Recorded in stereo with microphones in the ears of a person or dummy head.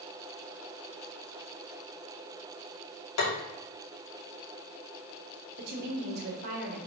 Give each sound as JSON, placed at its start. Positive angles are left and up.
{"t": 3.2, "sound": "tapping", "side_deg": 85, "distance_m": 2.5}
{"t": 5.6, "sound": "a woman speaking", "side_deg": -50, "distance_m": 2.0}